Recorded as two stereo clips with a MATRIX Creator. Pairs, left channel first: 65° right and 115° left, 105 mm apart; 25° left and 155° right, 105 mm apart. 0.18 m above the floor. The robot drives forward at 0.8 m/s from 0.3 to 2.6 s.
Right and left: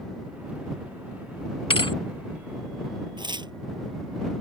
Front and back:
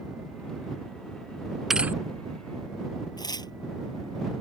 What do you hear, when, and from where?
1.7 s a thud: 70° right; by 2.0 s 95° right
3.2 s tearing paper: 70° left